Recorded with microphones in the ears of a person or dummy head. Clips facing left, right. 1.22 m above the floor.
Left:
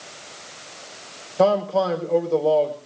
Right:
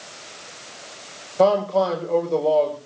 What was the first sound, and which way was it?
A man speaking, centre (ahead or behind).